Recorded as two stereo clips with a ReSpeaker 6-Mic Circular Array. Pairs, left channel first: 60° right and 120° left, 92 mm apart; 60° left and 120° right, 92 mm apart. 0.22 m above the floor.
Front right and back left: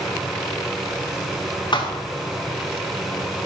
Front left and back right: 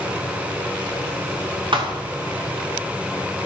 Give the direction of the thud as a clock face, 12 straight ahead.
3 o'clock.